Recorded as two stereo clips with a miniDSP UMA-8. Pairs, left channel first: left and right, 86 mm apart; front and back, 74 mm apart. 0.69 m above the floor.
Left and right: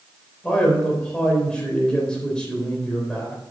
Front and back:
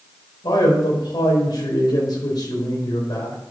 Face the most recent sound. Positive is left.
turn(degrees=10)